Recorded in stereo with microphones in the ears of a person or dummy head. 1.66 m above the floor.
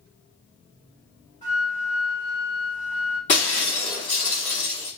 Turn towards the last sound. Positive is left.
turn(degrees=25)  # may be behind; listen again after turning